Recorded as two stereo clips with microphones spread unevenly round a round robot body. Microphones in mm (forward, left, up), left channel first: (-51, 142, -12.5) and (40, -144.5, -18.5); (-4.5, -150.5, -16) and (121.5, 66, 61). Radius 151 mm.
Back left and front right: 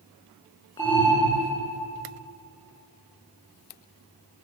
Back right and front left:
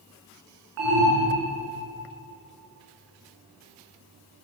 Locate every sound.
0.8 s an alarm: 30° left, 7.5 m